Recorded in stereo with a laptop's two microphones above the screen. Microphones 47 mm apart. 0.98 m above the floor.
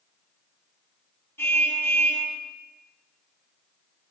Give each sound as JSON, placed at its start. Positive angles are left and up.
{"t": 1.4, "sound": "a car horn", "side_deg": 65, "distance_m": 4.5}